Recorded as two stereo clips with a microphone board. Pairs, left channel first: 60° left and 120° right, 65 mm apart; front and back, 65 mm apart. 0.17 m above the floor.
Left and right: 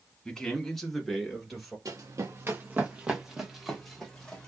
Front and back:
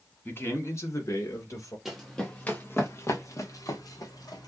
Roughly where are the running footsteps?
Right.